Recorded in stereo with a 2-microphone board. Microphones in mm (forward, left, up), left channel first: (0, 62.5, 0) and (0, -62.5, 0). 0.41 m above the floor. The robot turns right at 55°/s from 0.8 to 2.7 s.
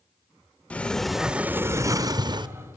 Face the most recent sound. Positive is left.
turn(degrees=-90)